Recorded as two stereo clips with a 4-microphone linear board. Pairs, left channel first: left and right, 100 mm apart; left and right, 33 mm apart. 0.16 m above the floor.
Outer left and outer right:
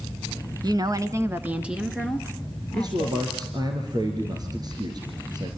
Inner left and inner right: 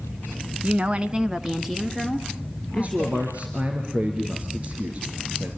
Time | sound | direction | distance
0.6 | a woman speaking | 40° right (ahead or behind) | 1.3 m
2.7 | a man speaking | 40° right (ahead or behind) | 3.5 m